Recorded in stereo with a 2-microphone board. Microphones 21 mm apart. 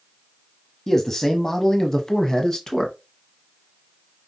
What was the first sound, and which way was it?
A man speaking, 15° left (ahead or behind).